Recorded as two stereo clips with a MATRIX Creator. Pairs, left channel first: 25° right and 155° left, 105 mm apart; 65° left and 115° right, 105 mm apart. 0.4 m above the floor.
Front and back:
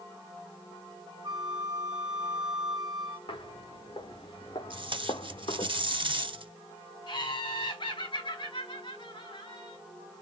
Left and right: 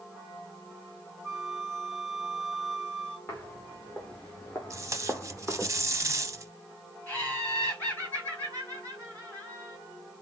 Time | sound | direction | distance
1.2 | a flute | 155° left | 1.3 m
3.3 | footsteps | straight ahead | 2.5 m
4.7 | tape being pulled | 170° right | 0.6 m
7.1 | laughter | straight ahead | 3.5 m